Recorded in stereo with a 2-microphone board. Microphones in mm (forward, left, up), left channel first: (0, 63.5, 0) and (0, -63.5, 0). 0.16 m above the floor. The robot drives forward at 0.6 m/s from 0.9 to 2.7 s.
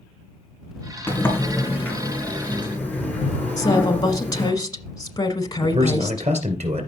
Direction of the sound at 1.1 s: 15° left (ahead or behind).